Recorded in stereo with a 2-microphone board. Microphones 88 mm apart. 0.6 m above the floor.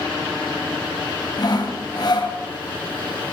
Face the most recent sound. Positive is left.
turn(degrees=50)  # may be behind; listen again after turning